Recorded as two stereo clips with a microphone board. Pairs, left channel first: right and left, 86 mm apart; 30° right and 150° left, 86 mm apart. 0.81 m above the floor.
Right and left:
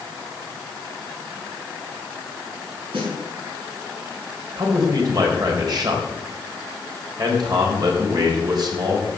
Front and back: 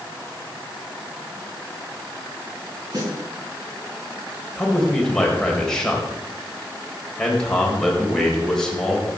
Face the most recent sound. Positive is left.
turn(degrees=50)